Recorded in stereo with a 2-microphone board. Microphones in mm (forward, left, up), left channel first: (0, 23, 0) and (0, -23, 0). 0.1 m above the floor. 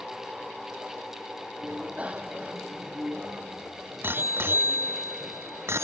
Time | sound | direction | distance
1.6 | a bicycle bell | 25° right (ahead or behind) | ?